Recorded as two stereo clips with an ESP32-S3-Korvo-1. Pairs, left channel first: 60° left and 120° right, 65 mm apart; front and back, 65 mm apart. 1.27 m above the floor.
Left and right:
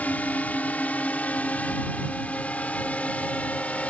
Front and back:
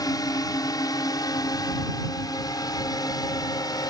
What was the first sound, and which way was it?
A drone, 5° right.